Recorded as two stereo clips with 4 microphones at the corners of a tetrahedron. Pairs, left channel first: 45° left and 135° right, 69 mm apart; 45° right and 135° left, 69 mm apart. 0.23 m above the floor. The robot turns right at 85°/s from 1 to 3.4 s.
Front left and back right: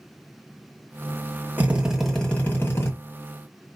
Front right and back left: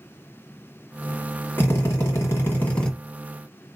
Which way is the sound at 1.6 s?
85° right.